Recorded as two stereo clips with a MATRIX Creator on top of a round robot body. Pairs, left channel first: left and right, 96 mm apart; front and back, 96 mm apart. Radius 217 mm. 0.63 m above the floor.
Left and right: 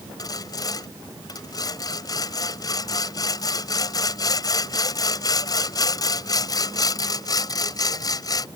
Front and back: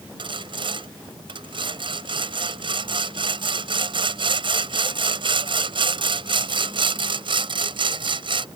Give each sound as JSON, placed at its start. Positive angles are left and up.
{"t": 0.2, "sound": "sawing", "azimuth_deg": 145}